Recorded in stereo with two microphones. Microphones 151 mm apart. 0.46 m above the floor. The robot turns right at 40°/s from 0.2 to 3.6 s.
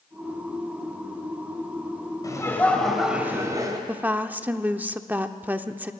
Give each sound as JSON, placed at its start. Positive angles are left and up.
{"t": 2.2, "sound": "laughter", "azimuth_deg": 150, "distance_m": 2.0}
{"t": 3.9, "sound": "a woman speaking", "side_deg": -10, "distance_m": 0.7}